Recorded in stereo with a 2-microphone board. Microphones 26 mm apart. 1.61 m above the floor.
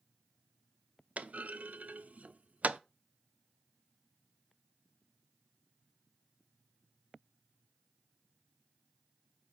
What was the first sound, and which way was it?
A clunk, 65° right (ahead or behind).